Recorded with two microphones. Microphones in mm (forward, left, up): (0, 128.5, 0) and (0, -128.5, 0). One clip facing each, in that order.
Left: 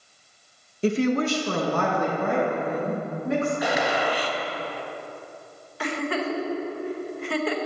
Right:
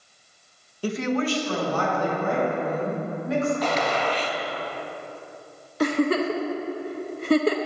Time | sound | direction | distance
0.8 | a woman speaking | 20° left (ahead or behind) | 0.7 m
3.6 | a gunshot | 10° left (ahead or behind) | 0.6 m
5.8 | a giggle | 45° right (ahead or behind) | 0.7 m